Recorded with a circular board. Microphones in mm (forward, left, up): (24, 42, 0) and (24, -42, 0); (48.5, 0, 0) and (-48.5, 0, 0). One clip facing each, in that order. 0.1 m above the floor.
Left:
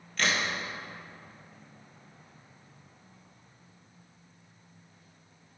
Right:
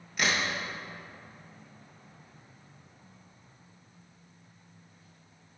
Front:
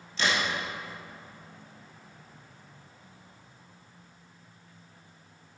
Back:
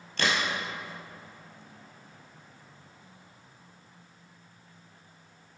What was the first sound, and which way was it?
A crack, 165° right.